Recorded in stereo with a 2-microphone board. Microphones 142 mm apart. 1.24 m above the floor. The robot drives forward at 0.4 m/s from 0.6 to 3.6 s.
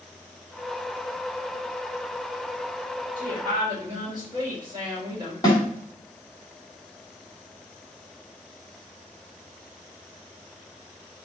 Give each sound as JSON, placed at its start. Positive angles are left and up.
{"t": 3.2, "sound": "a woman speaking", "side_deg": -35, "distance_m": 2.5}
{"t": 5.4, "sound": "a snare drum", "side_deg": 25, "distance_m": 2.5}